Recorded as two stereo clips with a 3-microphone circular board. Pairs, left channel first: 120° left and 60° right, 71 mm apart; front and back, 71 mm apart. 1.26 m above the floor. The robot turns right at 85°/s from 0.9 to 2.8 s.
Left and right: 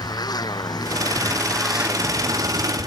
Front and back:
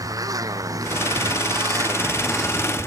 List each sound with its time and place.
0.0 s a motorcycle: 145° left; by 2.9 s 55° right